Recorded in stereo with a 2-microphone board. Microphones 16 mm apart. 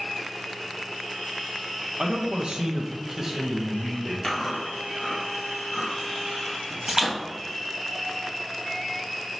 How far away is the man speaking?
About 0.8 m.